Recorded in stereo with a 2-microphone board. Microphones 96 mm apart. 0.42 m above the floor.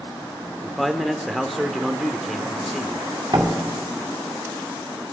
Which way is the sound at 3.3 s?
45° right (ahead or behind).